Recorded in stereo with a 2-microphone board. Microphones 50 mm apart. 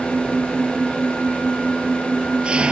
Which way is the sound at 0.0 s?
20° right (ahead or behind).